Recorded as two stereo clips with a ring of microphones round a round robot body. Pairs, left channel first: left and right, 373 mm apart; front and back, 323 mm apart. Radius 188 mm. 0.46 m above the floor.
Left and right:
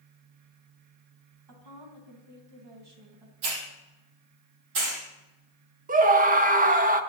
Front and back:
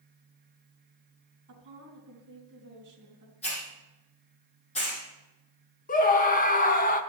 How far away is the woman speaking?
About 3.5 m.